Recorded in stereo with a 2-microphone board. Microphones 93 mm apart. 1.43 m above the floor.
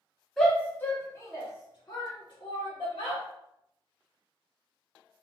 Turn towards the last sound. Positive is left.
turn(degrees=65)  # may be behind; listen again after turning